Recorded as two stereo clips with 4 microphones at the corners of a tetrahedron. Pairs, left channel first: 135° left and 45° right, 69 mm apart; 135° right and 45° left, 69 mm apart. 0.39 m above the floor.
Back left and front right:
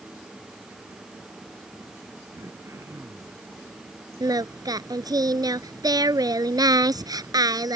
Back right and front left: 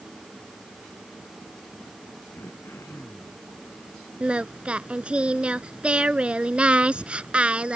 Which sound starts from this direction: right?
Throat clearing, at 2.4 s.